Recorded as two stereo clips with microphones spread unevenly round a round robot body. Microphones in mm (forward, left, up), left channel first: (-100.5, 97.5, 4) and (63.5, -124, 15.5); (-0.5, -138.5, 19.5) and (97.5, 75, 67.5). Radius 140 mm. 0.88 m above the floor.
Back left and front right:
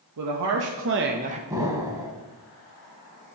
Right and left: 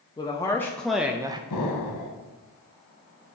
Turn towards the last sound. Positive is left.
turn(degrees=-130)